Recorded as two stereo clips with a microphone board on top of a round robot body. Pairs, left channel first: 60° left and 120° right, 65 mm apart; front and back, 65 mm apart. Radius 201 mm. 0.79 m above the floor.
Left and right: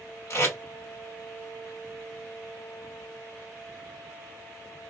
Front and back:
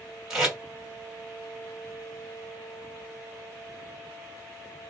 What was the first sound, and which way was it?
Tape being pulled, 100° left.